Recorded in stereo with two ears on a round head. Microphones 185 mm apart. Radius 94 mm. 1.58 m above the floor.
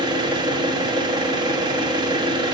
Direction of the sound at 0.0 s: 20° right (ahead or behind).